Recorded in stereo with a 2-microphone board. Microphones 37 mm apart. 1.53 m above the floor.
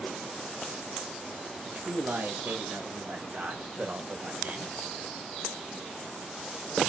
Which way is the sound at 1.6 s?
65° right (ahead or behind).